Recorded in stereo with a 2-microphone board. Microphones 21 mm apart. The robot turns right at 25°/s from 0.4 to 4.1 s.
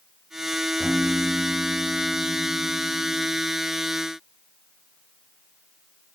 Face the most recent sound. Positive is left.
turn(degrees=35)